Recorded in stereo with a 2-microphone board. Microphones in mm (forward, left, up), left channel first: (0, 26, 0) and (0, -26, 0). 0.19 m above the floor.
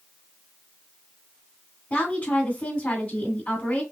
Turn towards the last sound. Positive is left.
turn(degrees=30)  # may be behind; listen again after turning